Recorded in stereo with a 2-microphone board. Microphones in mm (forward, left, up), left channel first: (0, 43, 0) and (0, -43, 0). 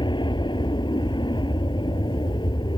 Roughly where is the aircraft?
Left.